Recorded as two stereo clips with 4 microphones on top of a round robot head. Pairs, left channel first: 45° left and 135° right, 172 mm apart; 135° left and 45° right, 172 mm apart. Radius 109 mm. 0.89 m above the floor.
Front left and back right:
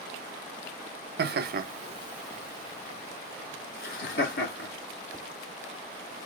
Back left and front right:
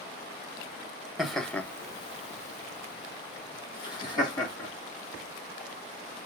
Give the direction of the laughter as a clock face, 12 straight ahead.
4 o'clock.